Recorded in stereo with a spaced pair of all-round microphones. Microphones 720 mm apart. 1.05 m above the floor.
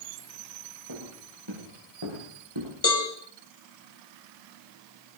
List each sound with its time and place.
0.9 s footsteps: 30° right (ahead or behind), 7.5 m; by 2.7 s 40° right (ahead or behind), 6 m
2.8 s a cowbell: 20° left (ahead or behind), 2.5 m